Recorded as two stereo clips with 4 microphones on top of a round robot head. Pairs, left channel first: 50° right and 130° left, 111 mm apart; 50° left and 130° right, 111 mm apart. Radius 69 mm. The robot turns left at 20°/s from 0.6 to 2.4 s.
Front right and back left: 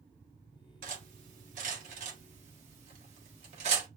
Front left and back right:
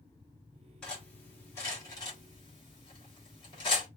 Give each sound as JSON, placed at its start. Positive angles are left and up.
{"t": 0.8, "sound": "cutlery clinking", "azimuth_deg": 135, "distance_m": 1.3}